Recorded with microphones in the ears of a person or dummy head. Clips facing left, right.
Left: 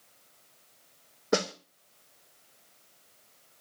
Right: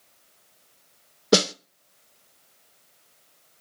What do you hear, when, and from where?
1.3 s a snare drum: 40° right (ahead or behind), 0.9 m